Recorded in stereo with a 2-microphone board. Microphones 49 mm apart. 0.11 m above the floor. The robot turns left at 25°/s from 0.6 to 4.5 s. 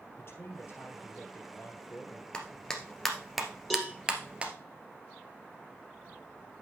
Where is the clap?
15° left (ahead or behind), 1.5 m; by 4.5 s 25° right (ahead or behind), 1.5 m.